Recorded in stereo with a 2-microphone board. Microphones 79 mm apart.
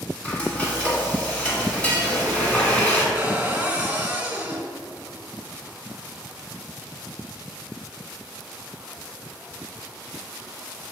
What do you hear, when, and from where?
0.2 s frying: 15° left (ahead or behind), 1.7 m
3.1 s a cupboard door: 15° right (ahead or behind), 1.3 m